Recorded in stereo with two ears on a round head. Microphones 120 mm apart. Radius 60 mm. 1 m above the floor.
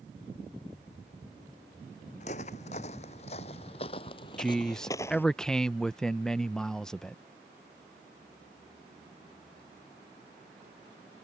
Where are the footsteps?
55° left (ahead or behind); by 5.3 s 15° left (ahead or behind).